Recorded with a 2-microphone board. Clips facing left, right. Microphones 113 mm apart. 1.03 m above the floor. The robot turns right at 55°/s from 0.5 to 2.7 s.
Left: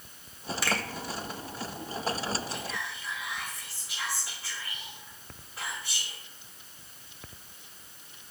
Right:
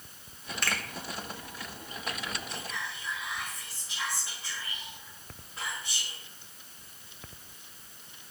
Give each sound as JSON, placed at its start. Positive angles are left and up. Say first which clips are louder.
{"t": 0.6, "sound": "a finger snap", "louder": "left 4 dB", "side_deg": 5, "distance_m": 1.1}
{"t": 2.5, "sound": "whispering", "louder": "left 2 dB", "side_deg": 0, "distance_m": 2.5}